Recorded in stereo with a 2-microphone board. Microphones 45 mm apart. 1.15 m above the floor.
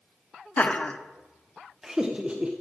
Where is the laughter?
35° left (ahead or behind), 0.9 m; by 2.5 s 30° right (ahead or behind), 1.0 m.